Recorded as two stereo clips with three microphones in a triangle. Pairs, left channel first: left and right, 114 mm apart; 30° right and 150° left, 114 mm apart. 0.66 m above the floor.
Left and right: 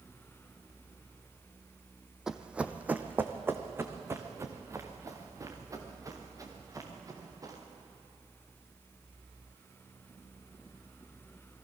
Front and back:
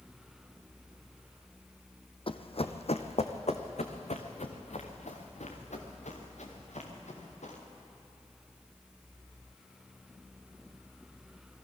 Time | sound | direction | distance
2.3 | running footsteps | 5° right | 1.2 m